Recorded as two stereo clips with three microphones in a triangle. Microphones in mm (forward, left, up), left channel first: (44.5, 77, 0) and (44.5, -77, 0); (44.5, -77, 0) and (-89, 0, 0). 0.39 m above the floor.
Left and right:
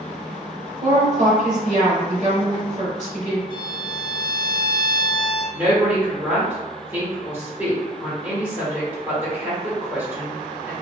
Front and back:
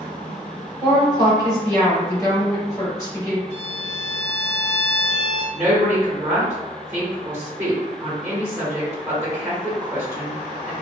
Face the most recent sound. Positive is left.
turn(degrees=-150)